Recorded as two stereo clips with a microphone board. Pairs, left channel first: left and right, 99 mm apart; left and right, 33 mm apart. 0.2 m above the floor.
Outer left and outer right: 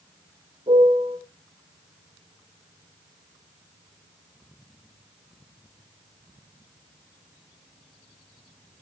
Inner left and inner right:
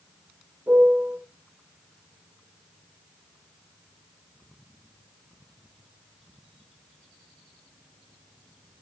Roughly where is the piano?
Right.